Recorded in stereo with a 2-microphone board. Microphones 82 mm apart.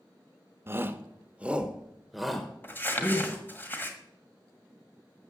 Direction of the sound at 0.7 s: 30° right (ahead or behind).